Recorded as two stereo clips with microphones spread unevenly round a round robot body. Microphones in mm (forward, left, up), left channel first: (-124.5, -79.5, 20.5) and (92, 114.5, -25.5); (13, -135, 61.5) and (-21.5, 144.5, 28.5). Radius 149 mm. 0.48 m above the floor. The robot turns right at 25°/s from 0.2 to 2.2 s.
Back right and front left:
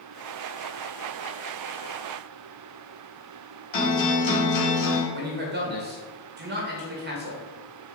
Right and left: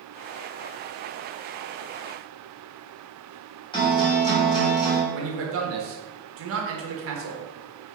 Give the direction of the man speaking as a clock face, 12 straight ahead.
9 o'clock.